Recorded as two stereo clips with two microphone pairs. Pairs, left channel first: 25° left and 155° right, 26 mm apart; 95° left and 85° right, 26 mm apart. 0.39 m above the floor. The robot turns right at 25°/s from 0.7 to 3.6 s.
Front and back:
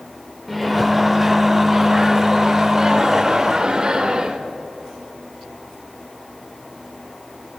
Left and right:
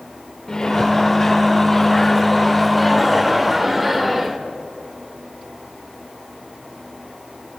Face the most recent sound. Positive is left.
turn(degrees=-165)